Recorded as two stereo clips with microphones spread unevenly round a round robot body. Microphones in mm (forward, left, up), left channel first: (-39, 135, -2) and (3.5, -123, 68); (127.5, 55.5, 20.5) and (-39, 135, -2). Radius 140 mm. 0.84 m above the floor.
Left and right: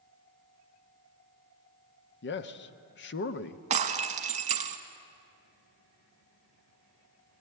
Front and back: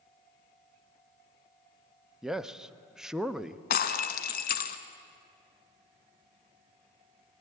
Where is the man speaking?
70° left, 0.9 m.